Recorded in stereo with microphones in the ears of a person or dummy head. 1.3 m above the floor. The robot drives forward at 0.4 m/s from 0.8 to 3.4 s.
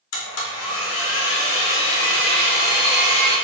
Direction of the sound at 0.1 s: 75° left (ahead or behind).